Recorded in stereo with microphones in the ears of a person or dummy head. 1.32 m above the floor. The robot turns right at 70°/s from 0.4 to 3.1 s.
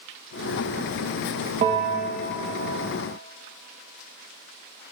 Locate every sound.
1.6 s a bell: 40° right, 1.3 m; by 2.4 s 15° left, 1.3 m